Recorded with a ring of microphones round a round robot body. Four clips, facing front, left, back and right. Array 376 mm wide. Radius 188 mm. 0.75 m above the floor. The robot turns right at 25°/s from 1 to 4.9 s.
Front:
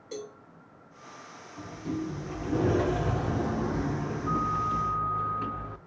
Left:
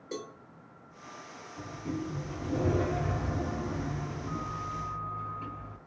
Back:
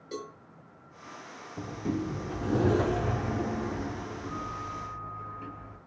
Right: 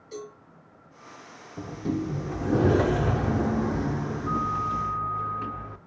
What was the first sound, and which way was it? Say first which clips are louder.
A cowbell: right 1 dB, even; 105° left.